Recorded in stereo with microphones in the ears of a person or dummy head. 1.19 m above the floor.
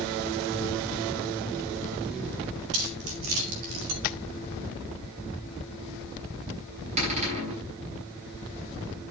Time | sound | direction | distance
2.7 | keys jangling | 80° right | 5 m
4.0 | tapping | 45° left (ahead or behind) | 0.5 m
7.0 | a cupboard door | 40° right (ahead or behind) | 7 m